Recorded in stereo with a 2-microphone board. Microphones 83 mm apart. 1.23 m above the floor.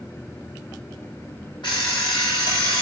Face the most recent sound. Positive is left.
turn(degrees=70)  # may be behind; listen again after turning